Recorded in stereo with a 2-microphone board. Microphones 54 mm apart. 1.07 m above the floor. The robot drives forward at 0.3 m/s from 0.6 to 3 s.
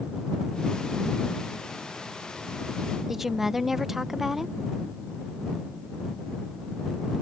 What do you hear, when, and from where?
3.1 s a woman speaking: 5° right (ahead or behind)